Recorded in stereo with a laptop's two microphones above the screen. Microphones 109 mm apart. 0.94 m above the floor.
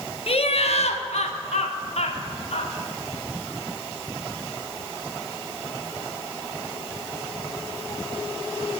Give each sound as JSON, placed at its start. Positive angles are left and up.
{"t": 0.3, "sound": "laughter", "side_deg": 60, "distance_m": 1.5}